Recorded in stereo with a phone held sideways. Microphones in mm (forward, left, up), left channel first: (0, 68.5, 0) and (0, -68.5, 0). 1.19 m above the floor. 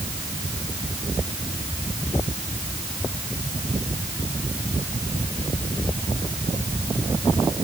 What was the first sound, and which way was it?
Only background noise.